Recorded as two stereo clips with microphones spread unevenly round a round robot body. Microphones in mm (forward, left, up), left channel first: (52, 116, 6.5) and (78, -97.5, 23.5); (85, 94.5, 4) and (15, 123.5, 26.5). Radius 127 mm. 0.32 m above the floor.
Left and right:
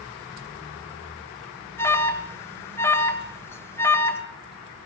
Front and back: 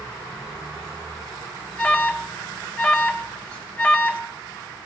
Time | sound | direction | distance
1.8 | an alarm | 25° left | 1.7 m